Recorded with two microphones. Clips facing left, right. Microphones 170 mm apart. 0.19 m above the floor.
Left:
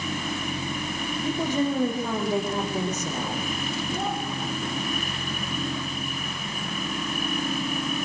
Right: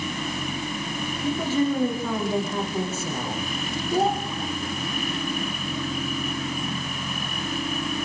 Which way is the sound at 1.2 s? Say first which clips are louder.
Right 2 dB; 15° left (ahead or behind).